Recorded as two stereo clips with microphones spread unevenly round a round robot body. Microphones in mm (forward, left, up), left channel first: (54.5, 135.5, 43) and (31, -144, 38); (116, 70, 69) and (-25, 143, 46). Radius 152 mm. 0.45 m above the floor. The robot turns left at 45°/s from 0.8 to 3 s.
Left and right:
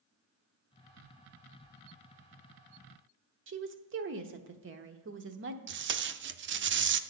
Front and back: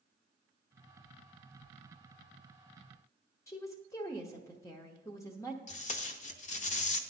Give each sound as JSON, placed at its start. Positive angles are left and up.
{"t": 3.5, "sound": "a woman speaking", "azimuth_deg": -100, "distance_m": 0.9}
{"t": 5.7, "sound": "tape being pulled", "azimuth_deg": -60, "distance_m": 0.5}